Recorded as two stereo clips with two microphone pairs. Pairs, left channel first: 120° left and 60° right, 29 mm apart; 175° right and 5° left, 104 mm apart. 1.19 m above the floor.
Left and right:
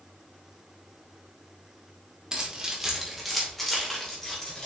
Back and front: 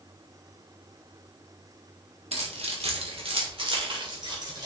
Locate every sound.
2.3 s keys jangling: straight ahead, 1.9 m; by 4.7 s 50° left, 3 m